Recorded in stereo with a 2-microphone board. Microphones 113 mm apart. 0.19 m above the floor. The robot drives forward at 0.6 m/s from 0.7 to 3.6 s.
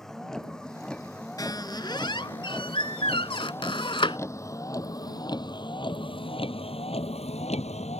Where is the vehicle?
5° left (ahead or behind); by 8.0 s 75° left (ahead or behind).